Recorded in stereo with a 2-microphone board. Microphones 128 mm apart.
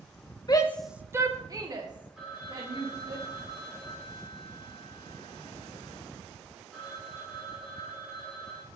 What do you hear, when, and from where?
0.5 s a shout: 35° left (ahead or behind), 0.5 m; by 3.2 s 40° right (ahead or behind), 3 m
2.2 s a phone ringing: 5° right (ahead or behind), 3.5 m